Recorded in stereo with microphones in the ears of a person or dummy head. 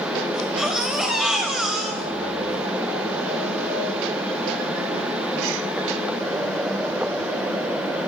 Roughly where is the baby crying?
Centre.